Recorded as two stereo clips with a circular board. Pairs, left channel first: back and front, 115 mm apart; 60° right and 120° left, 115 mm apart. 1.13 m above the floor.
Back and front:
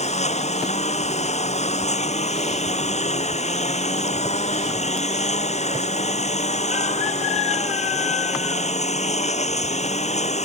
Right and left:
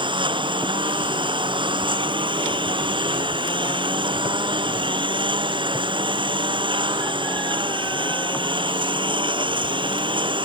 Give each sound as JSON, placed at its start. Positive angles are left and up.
{"t": 0.0, "sound": "a lawn mower", "azimuth_deg": 165}